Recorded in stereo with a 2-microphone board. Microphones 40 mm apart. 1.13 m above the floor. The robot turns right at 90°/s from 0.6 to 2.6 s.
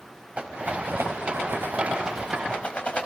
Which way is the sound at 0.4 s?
30° right (ahead or behind).